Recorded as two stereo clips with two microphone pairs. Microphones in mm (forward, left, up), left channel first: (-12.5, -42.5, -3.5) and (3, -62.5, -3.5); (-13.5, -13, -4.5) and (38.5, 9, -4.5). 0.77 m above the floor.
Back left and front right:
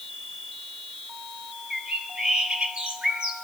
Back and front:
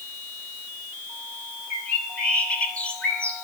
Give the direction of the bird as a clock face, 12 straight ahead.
3 o'clock.